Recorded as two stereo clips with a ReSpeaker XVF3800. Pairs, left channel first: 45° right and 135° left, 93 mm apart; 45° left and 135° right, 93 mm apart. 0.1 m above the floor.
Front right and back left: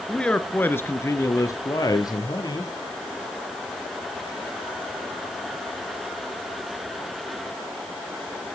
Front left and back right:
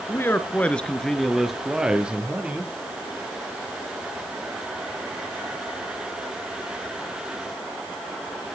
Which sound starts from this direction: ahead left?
A man speaking, at 0.1 s.